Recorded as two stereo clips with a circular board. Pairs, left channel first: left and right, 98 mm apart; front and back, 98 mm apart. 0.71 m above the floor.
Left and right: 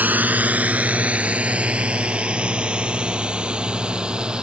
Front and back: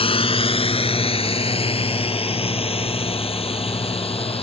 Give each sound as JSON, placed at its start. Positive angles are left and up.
{"t": 0.0, "sound": "a drone", "azimuth_deg": -15}